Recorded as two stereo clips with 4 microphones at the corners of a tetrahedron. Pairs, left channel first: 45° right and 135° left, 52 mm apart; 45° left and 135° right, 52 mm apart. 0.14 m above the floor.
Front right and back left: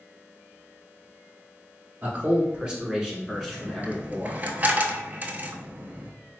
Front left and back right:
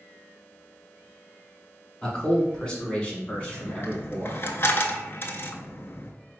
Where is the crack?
No crack in this recording.